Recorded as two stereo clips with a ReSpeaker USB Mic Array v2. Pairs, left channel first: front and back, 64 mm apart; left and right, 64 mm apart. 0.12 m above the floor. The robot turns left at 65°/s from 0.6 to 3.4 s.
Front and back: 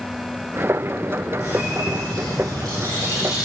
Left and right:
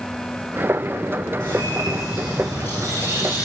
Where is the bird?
120° right, 4 m; by 3.5 s 110° left, 4 m.